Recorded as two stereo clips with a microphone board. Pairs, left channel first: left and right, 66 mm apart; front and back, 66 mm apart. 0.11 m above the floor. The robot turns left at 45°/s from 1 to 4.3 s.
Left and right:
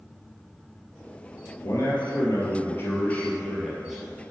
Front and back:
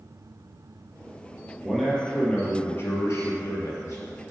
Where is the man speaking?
95° left, 2.5 m; by 4.0 s 15° right, 2.5 m.